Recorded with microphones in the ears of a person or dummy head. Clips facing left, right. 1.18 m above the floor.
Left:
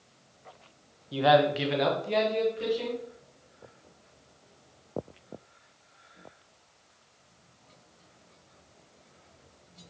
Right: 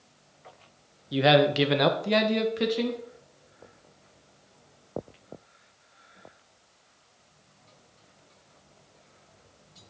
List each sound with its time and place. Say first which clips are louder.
1.1 s a man speaking: right 1 dB; 20° right (ahead or behind), 0.5 m; by 3.0 s 70° right (ahead or behind), 1.4 m